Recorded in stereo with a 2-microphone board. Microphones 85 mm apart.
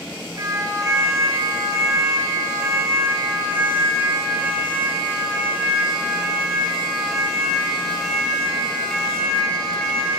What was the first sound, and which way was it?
A siren, 40° right (ahead or behind).